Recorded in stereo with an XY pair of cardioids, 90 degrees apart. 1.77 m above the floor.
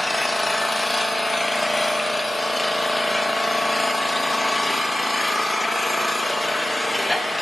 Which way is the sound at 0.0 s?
10° left.